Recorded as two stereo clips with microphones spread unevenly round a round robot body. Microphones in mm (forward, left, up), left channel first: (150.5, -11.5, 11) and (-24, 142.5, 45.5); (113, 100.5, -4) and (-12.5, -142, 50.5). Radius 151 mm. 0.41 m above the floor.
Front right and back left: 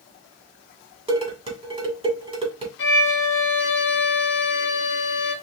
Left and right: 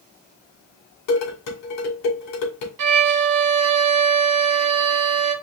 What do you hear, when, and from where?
1.1 s dishes clattering: 70° left, 2 m
2.8 s a violin: 85° right, 0.9 m